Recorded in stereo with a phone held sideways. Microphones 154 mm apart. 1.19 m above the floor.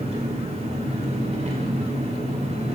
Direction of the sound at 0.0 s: 45° right (ahead or behind).